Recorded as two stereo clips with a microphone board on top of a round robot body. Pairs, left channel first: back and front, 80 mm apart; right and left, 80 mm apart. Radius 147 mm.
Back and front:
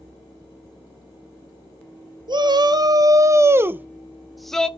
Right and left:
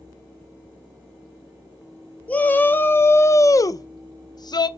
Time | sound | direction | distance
2.3 | a shout | 20° right | 1.5 m